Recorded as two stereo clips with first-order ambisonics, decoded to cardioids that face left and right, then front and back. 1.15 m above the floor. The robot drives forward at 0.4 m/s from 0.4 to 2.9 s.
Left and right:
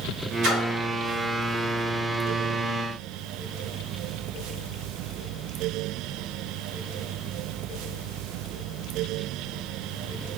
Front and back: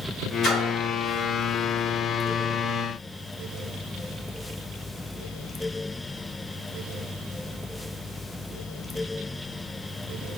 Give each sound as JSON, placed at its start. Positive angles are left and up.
{"t": 0.4, "sound": "a splash", "azimuth_deg": -60, "distance_m": 1.0}